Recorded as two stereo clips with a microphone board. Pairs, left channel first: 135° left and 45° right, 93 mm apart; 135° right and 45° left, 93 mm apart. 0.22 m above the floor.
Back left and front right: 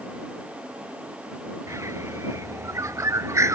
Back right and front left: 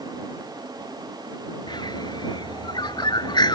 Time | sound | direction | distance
1.7 | a bird | 100° right | ?